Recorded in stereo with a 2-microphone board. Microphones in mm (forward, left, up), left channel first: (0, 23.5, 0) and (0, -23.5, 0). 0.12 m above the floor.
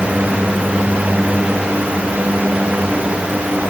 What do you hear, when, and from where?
Only background noise.